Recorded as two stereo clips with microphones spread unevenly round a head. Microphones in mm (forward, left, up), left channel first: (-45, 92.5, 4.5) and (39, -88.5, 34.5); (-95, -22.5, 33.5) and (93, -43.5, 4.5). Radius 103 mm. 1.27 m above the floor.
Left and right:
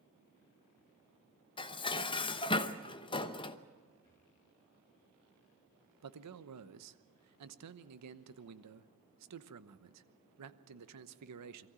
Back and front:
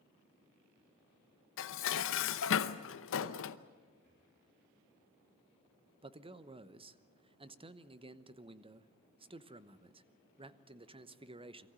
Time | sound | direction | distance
1.6 | dishes clattering | 175° right | 0.8 m
4.0 | breathing | 35° left | 4 m
6.0 | a man speaking | 70° right | 1.0 m